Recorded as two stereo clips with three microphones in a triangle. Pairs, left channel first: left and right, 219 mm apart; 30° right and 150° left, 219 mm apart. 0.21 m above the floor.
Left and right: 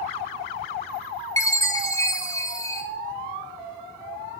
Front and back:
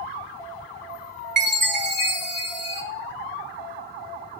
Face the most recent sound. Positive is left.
turn(degrees=160)